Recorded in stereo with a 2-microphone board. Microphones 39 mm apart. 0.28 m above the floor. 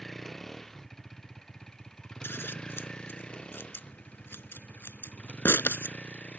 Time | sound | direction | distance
0.0 | a vehicle | 10° left (ahead or behind) | ?
2.2 | scissors | 80° left | ?